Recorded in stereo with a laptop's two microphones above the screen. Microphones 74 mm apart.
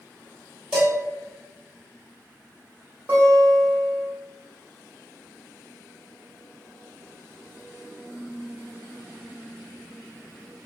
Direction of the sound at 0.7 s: 20° right (ahead or behind).